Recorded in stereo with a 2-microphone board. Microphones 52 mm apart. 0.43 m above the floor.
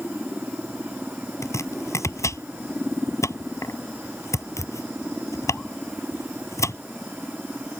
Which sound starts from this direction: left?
Chopping, at 1.4 s.